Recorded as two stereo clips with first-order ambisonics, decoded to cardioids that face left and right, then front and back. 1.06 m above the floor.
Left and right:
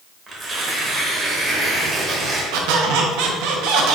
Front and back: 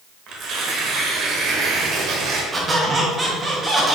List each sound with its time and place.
0.3 s tearing paper: 155° right, 1.0 m
2.5 s a squeak: 105° right, 0.8 m